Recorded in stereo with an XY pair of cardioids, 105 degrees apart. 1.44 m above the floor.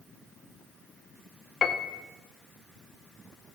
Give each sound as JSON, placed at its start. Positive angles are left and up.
{"t": 1.6, "sound": "a piano", "azimuth_deg": 50, "distance_m": 0.7}